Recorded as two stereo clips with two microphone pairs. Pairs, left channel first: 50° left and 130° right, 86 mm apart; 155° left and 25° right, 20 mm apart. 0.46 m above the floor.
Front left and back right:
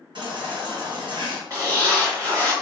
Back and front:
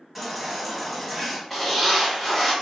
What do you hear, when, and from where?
0.1 s a baby crying: 110° right, 1.3 m
1.5 s a zipper: 125° right, 1.5 m